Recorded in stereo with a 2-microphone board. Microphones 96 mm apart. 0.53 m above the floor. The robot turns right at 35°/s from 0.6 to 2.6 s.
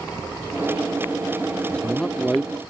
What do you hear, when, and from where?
1.7 s a man speaking: 10° left (ahead or behind); by 2.6 s centre (ahead or behind)